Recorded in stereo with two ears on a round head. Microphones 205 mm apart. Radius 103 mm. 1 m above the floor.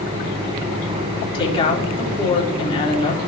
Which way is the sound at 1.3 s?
25° left (ahead or behind).